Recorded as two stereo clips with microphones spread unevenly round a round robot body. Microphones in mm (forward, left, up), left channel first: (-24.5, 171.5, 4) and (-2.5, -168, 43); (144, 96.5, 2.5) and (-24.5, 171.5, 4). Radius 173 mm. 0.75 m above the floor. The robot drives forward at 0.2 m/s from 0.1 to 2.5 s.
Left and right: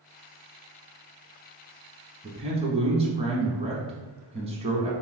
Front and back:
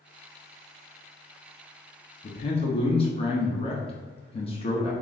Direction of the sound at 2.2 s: 15° right.